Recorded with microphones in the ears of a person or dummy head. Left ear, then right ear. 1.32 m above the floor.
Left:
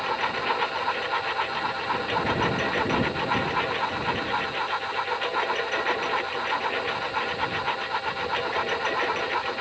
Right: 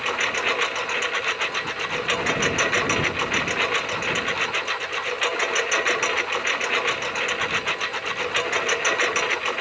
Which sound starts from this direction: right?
A lawn mower, at 0.0 s.